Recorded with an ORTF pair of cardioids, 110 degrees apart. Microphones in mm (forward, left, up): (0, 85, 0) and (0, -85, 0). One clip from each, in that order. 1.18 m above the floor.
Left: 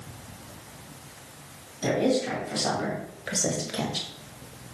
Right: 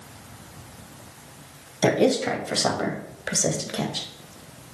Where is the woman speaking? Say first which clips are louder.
Right 4 dB; 60° right, 2.5 m; by 4.1 s straight ahead, 1.8 m.